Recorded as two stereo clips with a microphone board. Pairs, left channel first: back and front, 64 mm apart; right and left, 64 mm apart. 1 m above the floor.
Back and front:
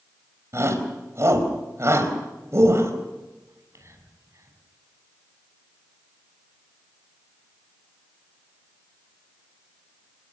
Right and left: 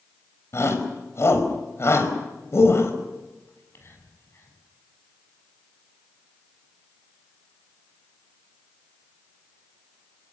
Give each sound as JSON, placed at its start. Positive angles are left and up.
{"t": 0.5, "sound": "a shout", "azimuth_deg": -45, "distance_m": 4.5}
{"t": 3.5, "sound": "whispering", "azimuth_deg": -40, "distance_m": 7.0}